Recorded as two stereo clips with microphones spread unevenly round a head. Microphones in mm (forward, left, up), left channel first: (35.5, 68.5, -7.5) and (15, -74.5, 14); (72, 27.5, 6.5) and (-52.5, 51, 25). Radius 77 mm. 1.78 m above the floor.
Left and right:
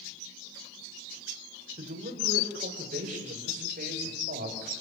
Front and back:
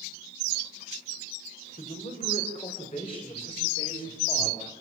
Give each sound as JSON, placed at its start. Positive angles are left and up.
{"t": 1.8, "sound": "a man speaking", "azimuth_deg": -60, "distance_m": 7.0}